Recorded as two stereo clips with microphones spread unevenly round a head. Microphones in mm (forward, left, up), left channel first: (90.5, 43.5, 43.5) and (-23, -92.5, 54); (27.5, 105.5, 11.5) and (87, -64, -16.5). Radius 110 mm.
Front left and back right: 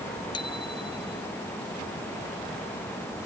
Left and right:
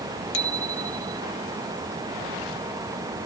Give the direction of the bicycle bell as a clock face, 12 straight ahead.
8 o'clock.